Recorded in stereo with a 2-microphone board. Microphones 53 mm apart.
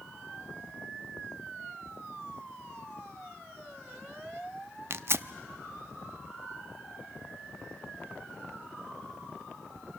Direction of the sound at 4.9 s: 50° right (ahead or behind).